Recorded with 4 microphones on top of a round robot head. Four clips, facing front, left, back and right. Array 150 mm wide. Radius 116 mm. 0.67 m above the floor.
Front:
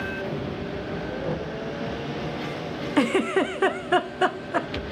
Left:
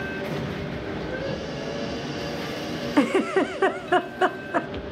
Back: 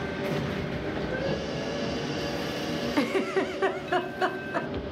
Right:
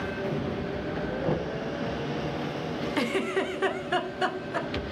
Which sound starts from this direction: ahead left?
A giggle, at 3.0 s.